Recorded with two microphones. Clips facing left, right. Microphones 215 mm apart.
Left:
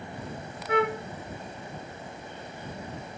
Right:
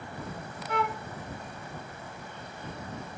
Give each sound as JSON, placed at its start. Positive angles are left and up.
{"t": 0.7, "sound": "a flute", "side_deg": 60}